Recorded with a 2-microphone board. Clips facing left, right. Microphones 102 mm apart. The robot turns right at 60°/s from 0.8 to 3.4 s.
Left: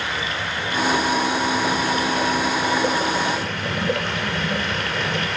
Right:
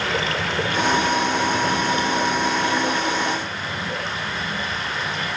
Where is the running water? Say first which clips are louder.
Right 3 dB; 100° right, 2.5 m; by 5.4 s 55° left, 2.5 m.